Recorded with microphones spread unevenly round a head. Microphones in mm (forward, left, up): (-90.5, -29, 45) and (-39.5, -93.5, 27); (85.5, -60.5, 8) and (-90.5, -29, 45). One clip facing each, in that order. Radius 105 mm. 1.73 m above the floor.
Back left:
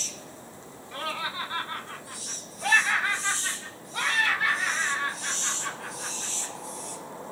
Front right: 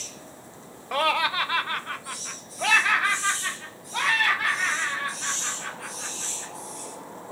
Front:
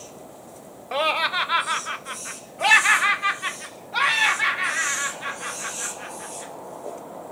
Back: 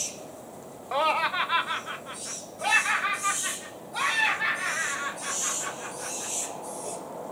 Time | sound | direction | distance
0.9 | laughter | 70° right | 0.8 m